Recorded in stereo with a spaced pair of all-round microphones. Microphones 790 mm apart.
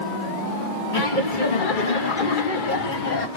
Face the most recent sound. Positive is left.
turn(degrees=60)  # may be behind; listen again after turning